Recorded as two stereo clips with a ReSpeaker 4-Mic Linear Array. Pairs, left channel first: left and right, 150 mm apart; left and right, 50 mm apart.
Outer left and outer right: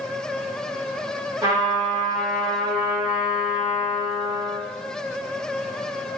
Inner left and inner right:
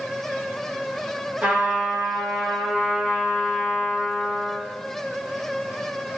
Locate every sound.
1.4 s a trumpet: 25° right (ahead or behind), 1.3 m